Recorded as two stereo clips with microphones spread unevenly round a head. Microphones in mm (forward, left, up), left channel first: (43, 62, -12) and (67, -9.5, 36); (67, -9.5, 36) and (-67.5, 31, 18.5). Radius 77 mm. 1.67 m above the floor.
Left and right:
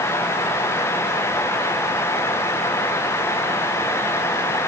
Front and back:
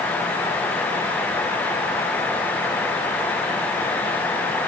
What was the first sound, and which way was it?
Only background noise.